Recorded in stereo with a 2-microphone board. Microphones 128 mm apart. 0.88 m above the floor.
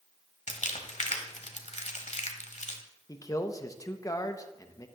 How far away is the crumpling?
About 1.3 m.